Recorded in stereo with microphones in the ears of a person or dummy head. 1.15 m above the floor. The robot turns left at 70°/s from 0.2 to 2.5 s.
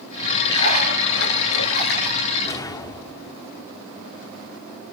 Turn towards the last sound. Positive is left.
turn(degrees=20)  # may be behind; listen again after turning